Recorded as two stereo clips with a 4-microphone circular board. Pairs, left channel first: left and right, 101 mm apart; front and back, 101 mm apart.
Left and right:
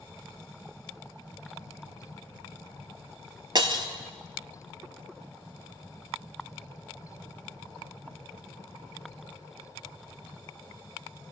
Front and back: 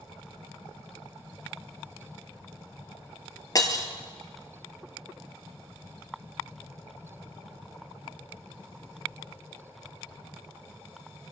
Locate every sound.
3.5 s breaking glass: 50° right, 0.7 m